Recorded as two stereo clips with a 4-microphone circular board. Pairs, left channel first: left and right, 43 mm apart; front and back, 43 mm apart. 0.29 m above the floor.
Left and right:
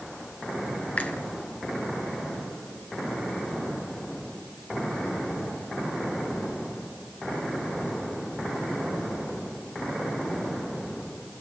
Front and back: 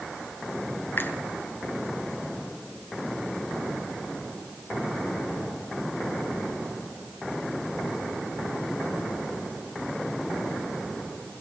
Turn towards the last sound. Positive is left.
turn(degrees=35)